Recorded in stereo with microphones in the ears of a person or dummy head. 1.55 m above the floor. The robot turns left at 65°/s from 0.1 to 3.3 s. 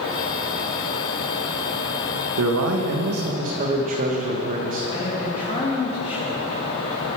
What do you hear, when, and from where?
2.4 s a man speaking: 75° right, 2.0 m; by 4.9 s 135° right, 2.0 m
4.9 s a man speaking: 35° left (ahead or behind), 3 m